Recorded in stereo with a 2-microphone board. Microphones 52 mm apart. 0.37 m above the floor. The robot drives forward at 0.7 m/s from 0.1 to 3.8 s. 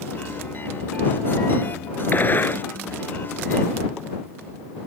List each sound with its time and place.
2.1 s a gunshot: 40° left (ahead or behind)